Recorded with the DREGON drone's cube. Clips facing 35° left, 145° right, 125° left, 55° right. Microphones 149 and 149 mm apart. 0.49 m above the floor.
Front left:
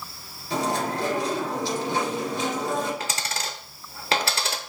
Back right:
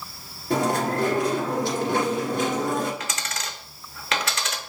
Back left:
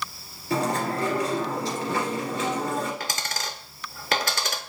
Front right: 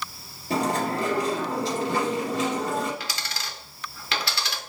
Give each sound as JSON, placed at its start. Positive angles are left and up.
{"t": 0.5, "sound": "chewing", "azimuth_deg": -110, "distance_m": 2.0}
{"t": 3.0, "sound": "a dropped coin", "azimuth_deg": 90, "distance_m": 0.6}